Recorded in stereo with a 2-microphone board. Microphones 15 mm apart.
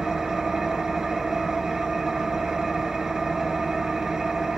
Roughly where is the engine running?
Right.